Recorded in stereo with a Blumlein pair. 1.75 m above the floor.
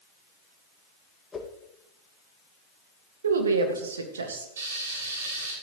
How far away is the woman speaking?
About 2 m.